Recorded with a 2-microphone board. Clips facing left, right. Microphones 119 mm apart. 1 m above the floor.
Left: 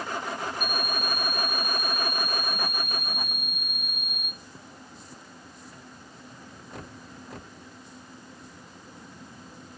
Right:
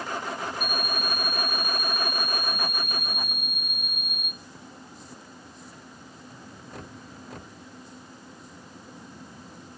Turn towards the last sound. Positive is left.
turn(degrees=-40)  # may be behind; listen again after turning